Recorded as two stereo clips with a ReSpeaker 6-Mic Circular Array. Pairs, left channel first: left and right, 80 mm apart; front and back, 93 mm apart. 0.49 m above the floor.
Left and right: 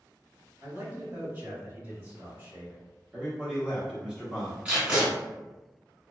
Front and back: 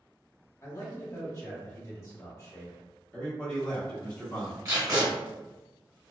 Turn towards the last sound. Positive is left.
turn(degrees=-155)